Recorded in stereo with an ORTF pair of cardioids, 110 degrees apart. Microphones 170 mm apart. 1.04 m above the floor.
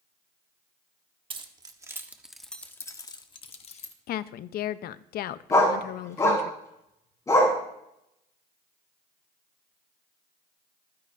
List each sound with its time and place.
1.3 s keys jangling: 30° right, 1.3 m; by 3.9 s 45° left, 1.4 m
4.1 s a woman speaking: 65° left, 0.7 m
5.5 s a dog barking: 20° left, 4.5 m